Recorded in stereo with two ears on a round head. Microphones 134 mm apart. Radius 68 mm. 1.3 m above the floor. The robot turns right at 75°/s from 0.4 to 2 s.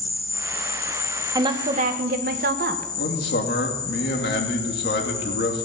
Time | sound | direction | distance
0.0 | an insect | 10° left | 4 m
1.4 | a woman speaking | 155° right | 1.4 m
3.0 | a man speaking | 80° left | 2.5 m